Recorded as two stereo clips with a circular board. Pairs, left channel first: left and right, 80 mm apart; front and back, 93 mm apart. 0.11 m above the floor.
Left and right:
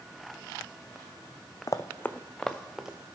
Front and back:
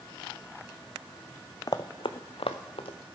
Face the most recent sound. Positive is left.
turn(degrees=-10)